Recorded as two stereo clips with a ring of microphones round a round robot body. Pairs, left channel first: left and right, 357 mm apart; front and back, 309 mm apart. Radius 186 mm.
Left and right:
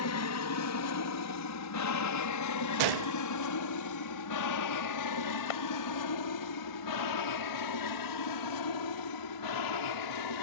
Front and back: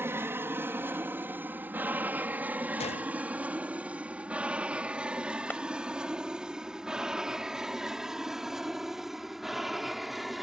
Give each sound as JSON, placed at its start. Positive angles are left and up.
{"t": 0.0, "sound": "an aircraft", "azimuth_deg": 100}
{"t": 2.8, "sound": "a gunshot", "azimuth_deg": -70}
{"t": 5.5, "sound": "a clap", "azimuth_deg": 85}